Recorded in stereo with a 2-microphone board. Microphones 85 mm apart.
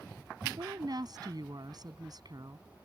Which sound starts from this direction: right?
A woman speaking, at 0.4 s.